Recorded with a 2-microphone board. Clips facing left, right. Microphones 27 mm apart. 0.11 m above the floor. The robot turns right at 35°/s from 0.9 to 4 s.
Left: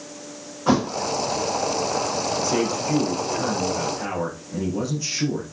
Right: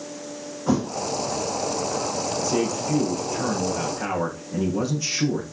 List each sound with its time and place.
0.7 s a thud: 65° left (ahead or behind), 1.2 m
2.4 s a man speaking: 130° left, 6.5 m; by 5.4 s 175° right, 6.5 m